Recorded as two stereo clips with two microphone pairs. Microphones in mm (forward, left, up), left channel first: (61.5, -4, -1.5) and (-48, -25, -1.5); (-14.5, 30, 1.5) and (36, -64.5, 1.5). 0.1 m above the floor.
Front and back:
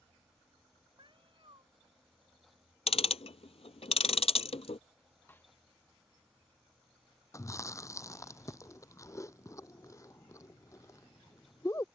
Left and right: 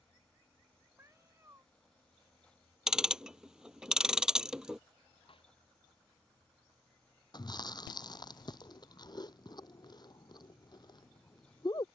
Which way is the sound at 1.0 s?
125° right.